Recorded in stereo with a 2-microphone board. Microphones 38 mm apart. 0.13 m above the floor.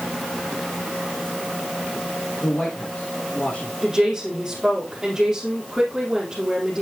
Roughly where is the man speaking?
Left.